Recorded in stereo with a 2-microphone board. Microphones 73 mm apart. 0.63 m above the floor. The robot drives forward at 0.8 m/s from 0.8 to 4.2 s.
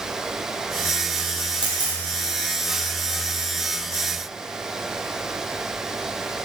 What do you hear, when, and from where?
1.6 s a camera shutter: 80° right, 4 m